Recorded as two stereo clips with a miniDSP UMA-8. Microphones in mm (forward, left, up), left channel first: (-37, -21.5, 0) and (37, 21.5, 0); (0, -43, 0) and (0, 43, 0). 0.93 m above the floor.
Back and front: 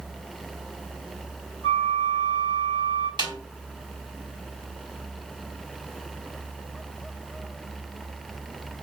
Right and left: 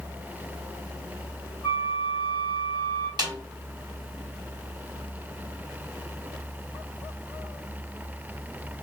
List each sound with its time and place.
1.6 s a flute: 50° left, 3 m
3.2 s a snare drum: 55° left, 2.5 m